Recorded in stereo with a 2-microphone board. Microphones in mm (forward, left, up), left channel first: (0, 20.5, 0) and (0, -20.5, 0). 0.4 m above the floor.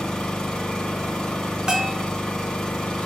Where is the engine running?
20° left (ahead or behind), 2.5 m.